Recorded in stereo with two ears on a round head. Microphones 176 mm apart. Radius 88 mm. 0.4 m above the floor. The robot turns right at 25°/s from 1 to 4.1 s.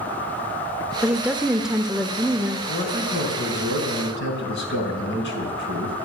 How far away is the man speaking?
About 5 m.